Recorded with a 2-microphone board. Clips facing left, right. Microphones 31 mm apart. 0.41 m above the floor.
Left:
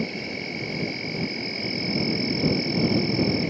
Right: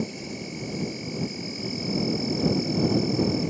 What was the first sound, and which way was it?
An insect, 40° left (ahead or behind).